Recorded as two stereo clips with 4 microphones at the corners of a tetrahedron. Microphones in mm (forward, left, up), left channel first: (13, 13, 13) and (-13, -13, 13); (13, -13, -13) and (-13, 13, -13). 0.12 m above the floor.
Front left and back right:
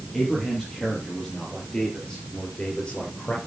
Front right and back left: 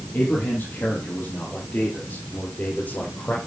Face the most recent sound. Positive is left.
turn(degrees=-10)